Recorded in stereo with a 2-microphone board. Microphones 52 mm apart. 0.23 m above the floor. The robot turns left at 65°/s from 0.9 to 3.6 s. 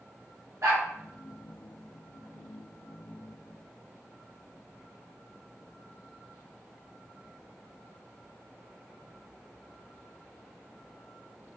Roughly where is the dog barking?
Right.